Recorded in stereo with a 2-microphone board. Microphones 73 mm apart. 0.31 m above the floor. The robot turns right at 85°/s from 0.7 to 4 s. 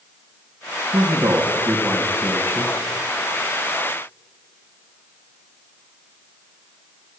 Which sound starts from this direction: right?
A man speaking, at 0.9 s.